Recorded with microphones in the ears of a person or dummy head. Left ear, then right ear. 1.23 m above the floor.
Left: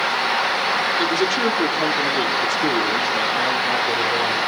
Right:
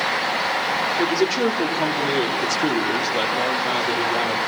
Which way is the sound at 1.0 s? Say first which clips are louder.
Left 1 dB; 45° left (ahead or behind).